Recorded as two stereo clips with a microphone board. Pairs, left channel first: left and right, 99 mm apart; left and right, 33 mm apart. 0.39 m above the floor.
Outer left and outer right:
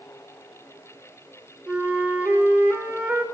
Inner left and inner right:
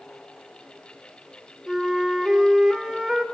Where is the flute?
15° right (ahead or behind), 1.0 m.